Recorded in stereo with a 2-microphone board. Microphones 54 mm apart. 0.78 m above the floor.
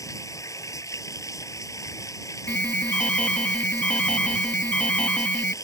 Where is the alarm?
25° left (ahead or behind).